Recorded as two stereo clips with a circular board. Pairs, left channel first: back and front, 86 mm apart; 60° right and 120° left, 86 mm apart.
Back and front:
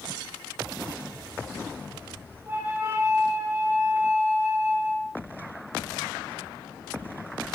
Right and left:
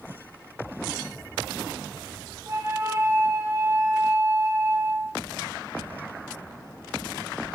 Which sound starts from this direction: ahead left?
A flute, at 2.5 s.